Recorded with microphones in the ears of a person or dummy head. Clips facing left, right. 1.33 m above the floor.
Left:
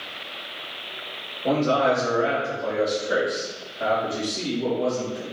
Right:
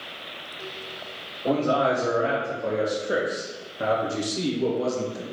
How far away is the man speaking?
About 1.4 m.